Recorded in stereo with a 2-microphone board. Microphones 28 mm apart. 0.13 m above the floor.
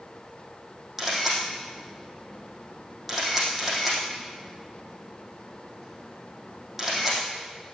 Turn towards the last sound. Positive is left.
turn(degrees=-10)  # may be behind; listen again after turning